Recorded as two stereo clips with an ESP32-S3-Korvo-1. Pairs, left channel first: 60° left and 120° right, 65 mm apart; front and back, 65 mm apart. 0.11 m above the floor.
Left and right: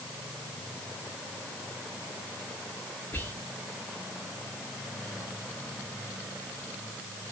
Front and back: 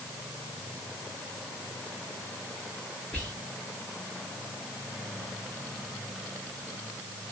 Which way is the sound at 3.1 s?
55° left.